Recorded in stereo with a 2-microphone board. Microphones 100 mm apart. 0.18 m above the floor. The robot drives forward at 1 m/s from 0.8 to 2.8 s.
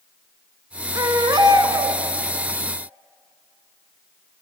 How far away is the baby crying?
About 1.1 m.